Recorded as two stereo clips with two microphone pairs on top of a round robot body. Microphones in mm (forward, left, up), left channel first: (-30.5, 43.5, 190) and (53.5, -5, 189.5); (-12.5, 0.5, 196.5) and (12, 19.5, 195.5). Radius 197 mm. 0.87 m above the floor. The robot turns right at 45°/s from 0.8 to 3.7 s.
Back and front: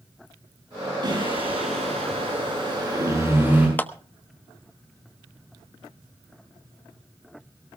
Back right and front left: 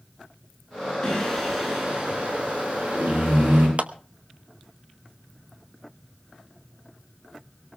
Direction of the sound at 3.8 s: 80° left.